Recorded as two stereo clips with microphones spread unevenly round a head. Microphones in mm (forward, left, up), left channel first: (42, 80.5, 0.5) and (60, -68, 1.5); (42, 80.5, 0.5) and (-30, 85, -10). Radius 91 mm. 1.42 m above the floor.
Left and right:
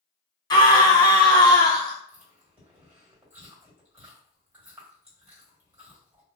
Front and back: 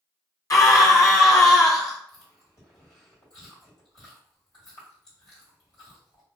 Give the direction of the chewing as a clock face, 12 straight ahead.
12 o'clock.